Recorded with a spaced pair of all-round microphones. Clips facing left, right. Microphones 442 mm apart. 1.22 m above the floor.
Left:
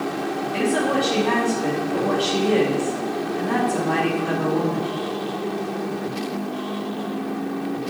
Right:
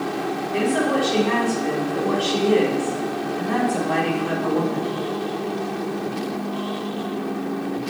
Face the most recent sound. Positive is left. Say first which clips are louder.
# right 1 dB
turn(degrees=85)